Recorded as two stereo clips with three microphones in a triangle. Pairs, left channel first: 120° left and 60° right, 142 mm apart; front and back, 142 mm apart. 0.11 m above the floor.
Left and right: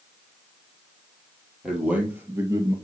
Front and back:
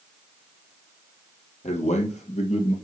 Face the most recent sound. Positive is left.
turn(degrees=-5)